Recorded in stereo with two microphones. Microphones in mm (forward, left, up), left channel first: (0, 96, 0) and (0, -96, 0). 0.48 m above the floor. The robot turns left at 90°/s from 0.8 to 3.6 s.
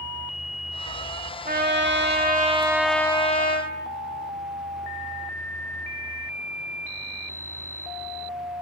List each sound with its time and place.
1.4 s a trumpet: 50° right, 0.9 m; by 3.7 s 115° left, 0.9 m